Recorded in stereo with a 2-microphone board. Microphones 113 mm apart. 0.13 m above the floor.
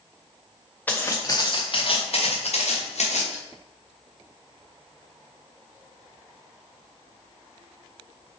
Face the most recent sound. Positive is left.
turn(degrees=80)